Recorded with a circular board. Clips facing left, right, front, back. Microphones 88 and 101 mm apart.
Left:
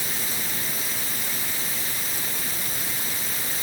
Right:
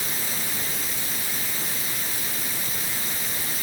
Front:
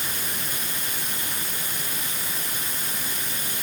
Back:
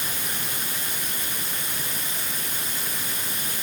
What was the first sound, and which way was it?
Only background noise.